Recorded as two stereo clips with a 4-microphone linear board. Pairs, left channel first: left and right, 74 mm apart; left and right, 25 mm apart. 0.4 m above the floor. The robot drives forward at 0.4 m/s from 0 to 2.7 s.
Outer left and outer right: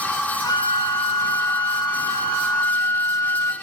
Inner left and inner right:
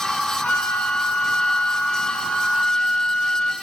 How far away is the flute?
About 1.1 m.